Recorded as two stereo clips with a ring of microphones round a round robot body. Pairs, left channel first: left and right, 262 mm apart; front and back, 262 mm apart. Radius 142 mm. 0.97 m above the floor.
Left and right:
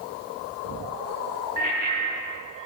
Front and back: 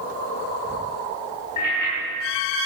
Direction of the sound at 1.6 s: 30° right.